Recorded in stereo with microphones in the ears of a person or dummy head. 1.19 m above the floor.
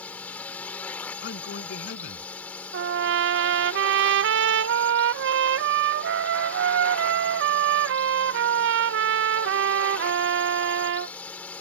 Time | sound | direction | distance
0.0 | a drone | 10° left (ahead or behind) | ?
1.2 | a man speaking | 60° left (ahead or behind) | ?
2.7 | a trumpet | 65° right (ahead or behind) | ?